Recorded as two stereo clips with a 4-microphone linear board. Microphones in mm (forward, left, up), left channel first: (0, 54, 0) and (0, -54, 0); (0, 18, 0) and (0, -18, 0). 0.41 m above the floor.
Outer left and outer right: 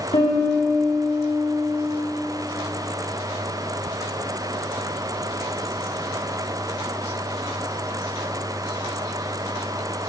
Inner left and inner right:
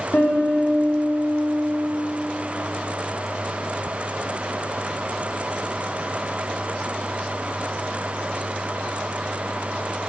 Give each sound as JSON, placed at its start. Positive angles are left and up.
{"t": 0.1, "sound": "a piano", "side_deg": 70, "distance_m": 4.5}